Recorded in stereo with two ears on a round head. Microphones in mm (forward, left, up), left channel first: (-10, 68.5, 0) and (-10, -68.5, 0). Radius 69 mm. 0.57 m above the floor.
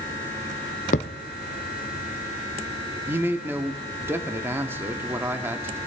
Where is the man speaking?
15° right (ahead or behind), 0.8 m.